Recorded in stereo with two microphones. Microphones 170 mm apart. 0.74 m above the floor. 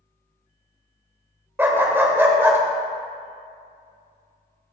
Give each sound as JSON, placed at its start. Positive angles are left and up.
{"t": 1.6, "sound": "a dog barking", "side_deg": -15, "distance_m": 0.7}